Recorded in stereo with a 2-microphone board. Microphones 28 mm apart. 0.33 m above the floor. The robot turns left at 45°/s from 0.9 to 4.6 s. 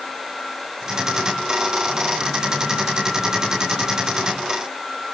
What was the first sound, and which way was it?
Only background noise.